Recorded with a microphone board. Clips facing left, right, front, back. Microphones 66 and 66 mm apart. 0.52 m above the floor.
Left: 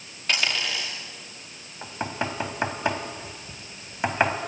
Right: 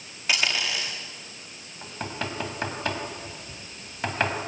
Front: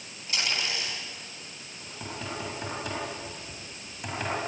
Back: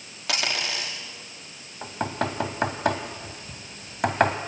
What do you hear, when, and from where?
0.3 s a dropped coin: 175° right, 7.5 m
1.8 s knocking: 160° left, 2.5 m